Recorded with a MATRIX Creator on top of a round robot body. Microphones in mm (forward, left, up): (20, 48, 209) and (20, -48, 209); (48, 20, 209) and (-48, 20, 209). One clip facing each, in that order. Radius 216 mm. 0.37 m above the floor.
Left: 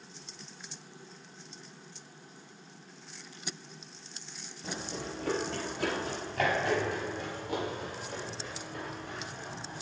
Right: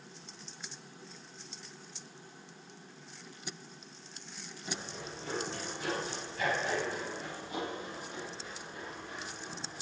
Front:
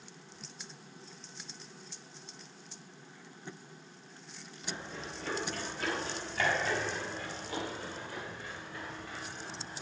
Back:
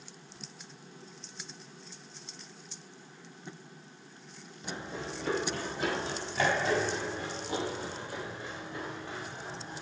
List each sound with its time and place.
4.6 s running footsteps: 115° left, 8.5 m